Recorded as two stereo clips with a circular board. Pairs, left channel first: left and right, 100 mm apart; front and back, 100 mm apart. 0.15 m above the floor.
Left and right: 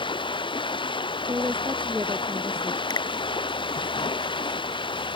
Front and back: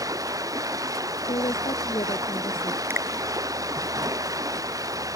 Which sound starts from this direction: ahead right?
A woman speaking, at 1.3 s.